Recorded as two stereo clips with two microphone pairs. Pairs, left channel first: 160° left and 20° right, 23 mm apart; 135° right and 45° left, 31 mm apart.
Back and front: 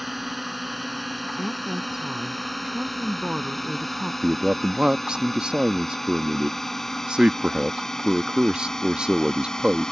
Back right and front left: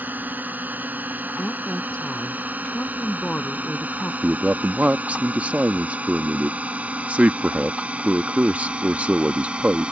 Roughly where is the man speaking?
Ahead.